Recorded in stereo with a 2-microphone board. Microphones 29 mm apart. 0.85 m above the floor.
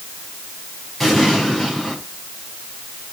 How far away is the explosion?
About 6 m.